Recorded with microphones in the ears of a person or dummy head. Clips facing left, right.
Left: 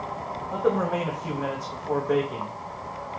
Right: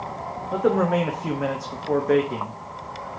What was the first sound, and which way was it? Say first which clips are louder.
A man speaking: right 4 dB; 35° right (ahead or behind).